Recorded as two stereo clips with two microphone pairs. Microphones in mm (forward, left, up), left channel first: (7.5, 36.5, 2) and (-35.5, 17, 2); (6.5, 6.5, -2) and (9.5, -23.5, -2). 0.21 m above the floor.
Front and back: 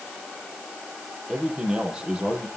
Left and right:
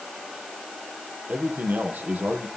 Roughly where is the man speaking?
Right.